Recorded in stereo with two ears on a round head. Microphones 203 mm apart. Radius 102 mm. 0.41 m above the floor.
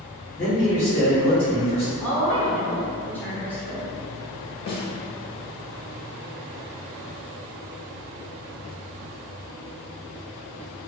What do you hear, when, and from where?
0.3 s a man speaking: 25° left (ahead or behind), 1.3 m; by 1.9 s 35° left (ahead or behind), 1.8 m
2.0 s a woman speaking: 10° left (ahead or behind), 1.0 m
4.7 s a snare drum: 40° left (ahead or behind), 0.9 m